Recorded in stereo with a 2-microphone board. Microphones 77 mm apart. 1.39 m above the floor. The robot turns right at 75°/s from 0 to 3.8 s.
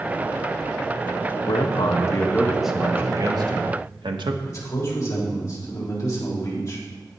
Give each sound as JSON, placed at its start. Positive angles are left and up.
{"t": 1.5, "sound": "a man speaking", "azimuth_deg": 95, "distance_m": 1.5}
{"t": 4.5, "sound": "a man speaking", "side_deg": 40, "distance_m": 4.0}